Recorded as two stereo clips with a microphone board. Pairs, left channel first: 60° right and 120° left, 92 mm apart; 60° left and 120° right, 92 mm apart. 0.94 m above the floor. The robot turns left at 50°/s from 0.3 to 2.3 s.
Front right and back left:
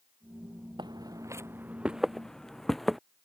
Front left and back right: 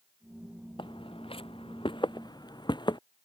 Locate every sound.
0.8 s footsteps: 85° left; by 3.0 s 30° left